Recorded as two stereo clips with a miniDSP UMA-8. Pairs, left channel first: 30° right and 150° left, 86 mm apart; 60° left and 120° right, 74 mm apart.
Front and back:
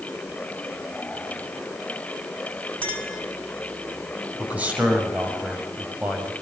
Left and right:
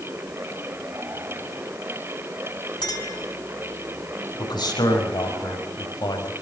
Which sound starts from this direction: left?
A man speaking, at 4.4 s.